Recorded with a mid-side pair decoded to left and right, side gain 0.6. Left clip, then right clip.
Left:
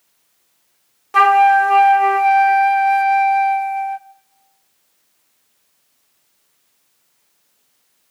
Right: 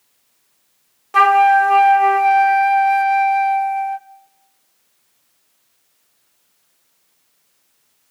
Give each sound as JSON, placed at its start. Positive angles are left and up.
{"t": 1.1, "sound": "a flute", "azimuth_deg": 5, "distance_m": 0.7}